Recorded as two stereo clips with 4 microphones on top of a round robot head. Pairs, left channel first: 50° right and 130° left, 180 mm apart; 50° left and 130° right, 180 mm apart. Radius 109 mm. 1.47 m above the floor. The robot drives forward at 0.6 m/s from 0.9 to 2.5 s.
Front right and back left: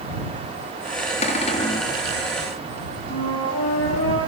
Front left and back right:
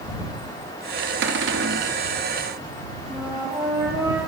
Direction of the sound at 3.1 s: 55° right.